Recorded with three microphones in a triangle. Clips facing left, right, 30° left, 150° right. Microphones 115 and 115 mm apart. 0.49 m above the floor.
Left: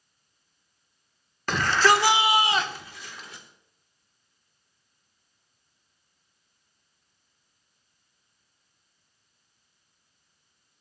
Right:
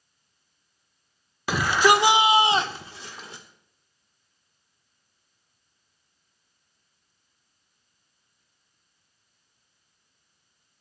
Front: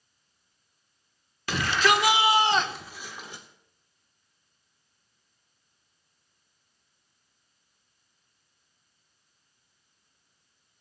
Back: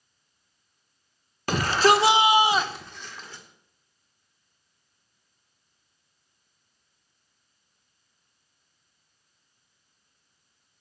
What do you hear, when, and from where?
1.5 s a shout: 170° right, 1.1 m; by 3.4 s 35° right, 1.2 m